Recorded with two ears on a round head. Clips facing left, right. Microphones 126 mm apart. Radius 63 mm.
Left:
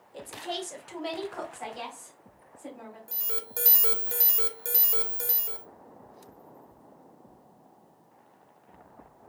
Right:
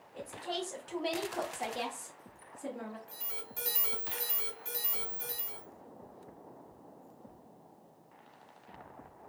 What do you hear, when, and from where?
0.1 s a woman speaking: 40° left (ahead or behind), 1.0 m; by 3.0 s 55° right (ahead or behind), 1.8 m
3.1 s an alarm: 65° left (ahead or behind), 0.9 m